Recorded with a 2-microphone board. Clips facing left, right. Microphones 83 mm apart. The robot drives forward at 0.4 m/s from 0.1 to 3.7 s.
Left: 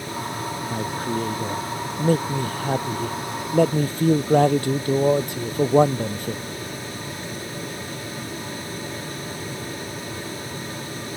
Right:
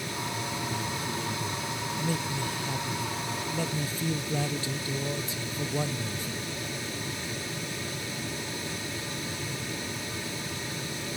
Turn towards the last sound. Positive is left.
turn(degrees=60)  # may be behind; listen again after turning